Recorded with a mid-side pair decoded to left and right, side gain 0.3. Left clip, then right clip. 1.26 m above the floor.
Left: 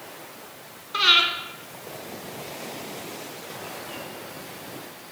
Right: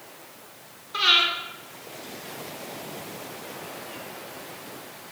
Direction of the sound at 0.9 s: 40° left.